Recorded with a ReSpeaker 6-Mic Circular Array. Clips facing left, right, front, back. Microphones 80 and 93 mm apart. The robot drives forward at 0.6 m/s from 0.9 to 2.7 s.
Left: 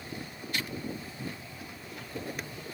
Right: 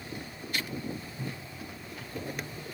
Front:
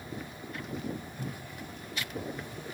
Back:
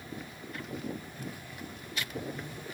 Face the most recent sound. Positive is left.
turn(degrees=-160)